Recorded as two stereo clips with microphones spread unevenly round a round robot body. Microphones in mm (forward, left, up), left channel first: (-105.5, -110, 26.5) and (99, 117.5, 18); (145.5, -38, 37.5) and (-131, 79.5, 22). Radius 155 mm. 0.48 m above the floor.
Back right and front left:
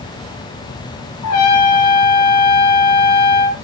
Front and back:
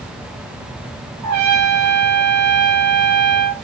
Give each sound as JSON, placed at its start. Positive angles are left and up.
{"t": 1.2, "sound": "a trumpet", "azimuth_deg": -170, "distance_m": 3.0}